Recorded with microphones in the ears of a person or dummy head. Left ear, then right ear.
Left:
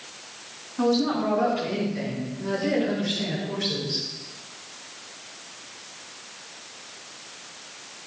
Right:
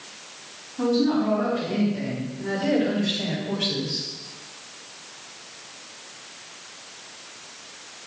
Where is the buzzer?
No buzzer in this recording.